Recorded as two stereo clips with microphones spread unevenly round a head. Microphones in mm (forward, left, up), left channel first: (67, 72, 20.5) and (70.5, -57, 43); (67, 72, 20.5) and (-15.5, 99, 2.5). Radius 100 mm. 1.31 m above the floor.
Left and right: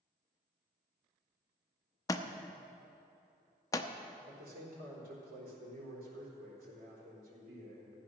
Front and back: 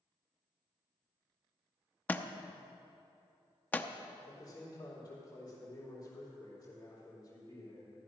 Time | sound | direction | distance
2.1 | a thud | 25° left | 0.7 m
4.3 | a man speaking | 90° right | 4 m